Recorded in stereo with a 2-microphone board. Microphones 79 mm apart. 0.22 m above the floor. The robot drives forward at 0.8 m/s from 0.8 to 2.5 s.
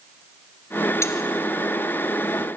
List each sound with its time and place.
1.0 s cutlery clinking: 35° left (ahead or behind), 2 m; by 1.1 s 40° left (ahead or behind), 2 m